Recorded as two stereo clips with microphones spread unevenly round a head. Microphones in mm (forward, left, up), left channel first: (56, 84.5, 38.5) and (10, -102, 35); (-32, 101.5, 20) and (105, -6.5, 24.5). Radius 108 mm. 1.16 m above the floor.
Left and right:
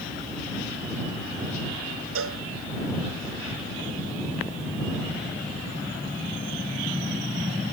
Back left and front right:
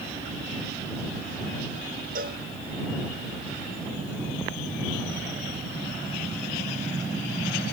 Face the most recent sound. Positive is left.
turn(degrees=-90)